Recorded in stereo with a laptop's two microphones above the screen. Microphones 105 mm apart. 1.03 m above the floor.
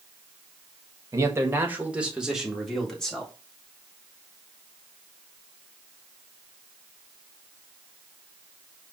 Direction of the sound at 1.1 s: 30° right (ahead or behind).